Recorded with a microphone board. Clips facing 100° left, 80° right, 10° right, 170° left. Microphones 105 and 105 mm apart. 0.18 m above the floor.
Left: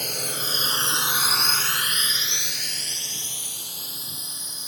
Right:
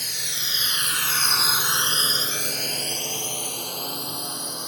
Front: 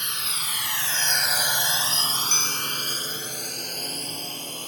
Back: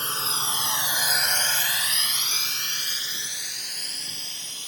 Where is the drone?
120° left; by 4.7 s 55° right.